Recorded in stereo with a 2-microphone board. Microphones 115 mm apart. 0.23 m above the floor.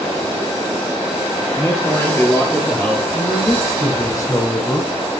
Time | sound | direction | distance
1.6 | a man speaking | 25° left (ahead or behind) | 5 m
3.1 | a man speaking | 30° left (ahead or behind) | 6 m